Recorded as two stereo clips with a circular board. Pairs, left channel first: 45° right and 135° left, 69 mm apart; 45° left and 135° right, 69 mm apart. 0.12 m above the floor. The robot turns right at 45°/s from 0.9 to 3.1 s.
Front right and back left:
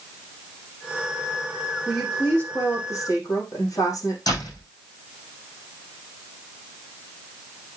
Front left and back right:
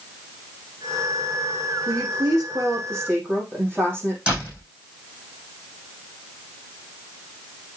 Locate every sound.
1.9 s a woman speaking: 135° right, 5.5 m; by 4.2 s 80° right, 5.5 m
4.3 s a door slam: 60° right, 5 m